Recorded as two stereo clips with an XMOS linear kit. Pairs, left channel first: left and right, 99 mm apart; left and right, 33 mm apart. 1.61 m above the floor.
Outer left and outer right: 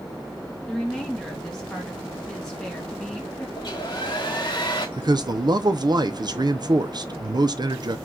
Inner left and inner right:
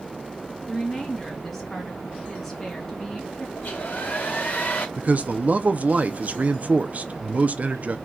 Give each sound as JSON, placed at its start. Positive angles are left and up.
{"t": 0.7, "sound": "a woman speaking", "side_deg": 5, "distance_m": 2.5}
{"t": 3.6, "sound": "a hair dryer", "side_deg": 45, "distance_m": 2.5}
{"t": 5.0, "sound": "a man speaking", "side_deg": -45, "distance_m": 0.7}